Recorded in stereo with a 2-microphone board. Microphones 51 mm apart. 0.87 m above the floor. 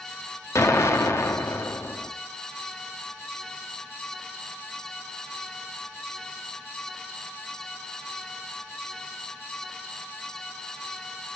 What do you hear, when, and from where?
0.6 s an explosion: 70° left (ahead or behind), 1.7 m